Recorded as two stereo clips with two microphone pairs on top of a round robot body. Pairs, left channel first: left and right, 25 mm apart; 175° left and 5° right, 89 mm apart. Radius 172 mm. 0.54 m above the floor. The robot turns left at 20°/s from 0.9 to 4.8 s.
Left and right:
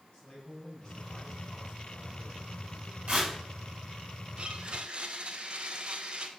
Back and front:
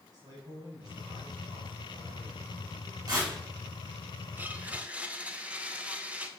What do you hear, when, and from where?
0.1 s a man speaking: 45° left, 5.5 m; by 3.5 s 5° right, 5.5 m
3.1 s tearing paper: 55° right, 5 m
4.4 s a blender: 75° right, 1.4 m; by 6.3 s 80° right, 1.4 m